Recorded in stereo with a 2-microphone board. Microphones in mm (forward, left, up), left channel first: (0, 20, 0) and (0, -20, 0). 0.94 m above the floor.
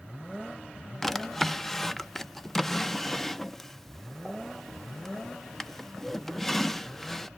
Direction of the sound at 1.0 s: 5° left (ahead or behind).